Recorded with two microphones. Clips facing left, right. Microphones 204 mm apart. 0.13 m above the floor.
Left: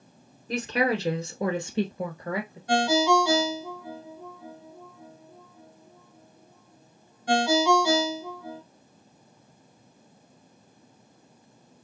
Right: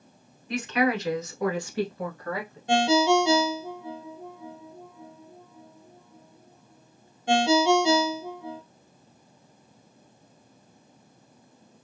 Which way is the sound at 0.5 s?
35° left (ahead or behind).